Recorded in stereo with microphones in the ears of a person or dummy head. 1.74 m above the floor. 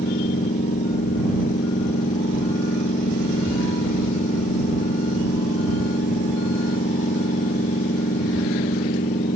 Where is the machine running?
45° left (ahead or behind).